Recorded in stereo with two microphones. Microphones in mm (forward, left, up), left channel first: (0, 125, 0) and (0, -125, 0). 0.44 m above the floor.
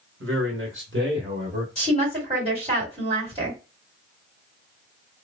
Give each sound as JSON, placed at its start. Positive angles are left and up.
{"t": 0.2, "sound": "a man speaking", "side_deg": -55, "distance_m": 1.3}
{"t": 1.8, "sound": "a woman speaking", "side_deg": -25, "distance_m": 2.0}